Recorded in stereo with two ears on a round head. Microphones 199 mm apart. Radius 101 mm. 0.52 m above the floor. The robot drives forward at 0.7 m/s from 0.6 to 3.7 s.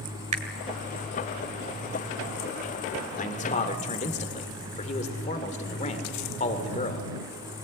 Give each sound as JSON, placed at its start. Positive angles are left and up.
{"t": 0.3, "sound": "a finger snap", "side_deg": -35, "distance_m": 2.0}
{"t": 3.2, "sound": "a man speaking", "side_deg": 35, "distance_m": 1.9}